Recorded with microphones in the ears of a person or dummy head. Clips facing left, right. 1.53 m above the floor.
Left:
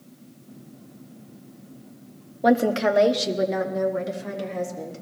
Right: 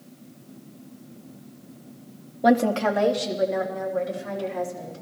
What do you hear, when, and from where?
2.4 s a woman speaking: 5° right (ahead or behind), 0.9 m; by 5.0 s 75° left (ahead or behind), 3.5 m